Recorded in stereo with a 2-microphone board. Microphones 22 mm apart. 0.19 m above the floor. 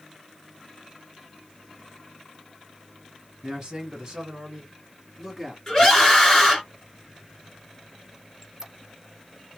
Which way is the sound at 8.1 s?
25° right (ahead or behind).